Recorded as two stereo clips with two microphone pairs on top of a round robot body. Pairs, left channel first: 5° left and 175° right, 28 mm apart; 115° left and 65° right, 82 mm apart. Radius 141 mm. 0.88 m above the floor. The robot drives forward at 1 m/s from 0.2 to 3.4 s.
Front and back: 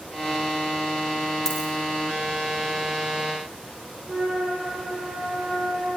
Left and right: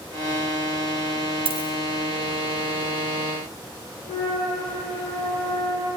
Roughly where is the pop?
No pop in this recording.